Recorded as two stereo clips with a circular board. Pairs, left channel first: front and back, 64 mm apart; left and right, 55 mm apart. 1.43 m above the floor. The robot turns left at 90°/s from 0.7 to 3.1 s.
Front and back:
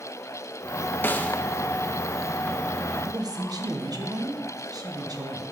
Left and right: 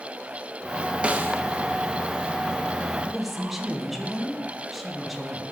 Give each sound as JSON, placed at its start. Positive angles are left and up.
{"t": 1.0, "sound": "a snare drum", "azimuth_deg": -35, "distance_m": 0.6}
{"t": 3.0, "sound": "a woman speaking", "azimuth_deg": -170, "distance_m": 1.0}